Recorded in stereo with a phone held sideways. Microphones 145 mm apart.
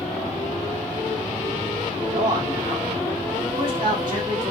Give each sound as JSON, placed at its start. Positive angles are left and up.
{"t": 2.1, "sound": "a man speaking", "side_deg": -35, "distance_m": 2.0}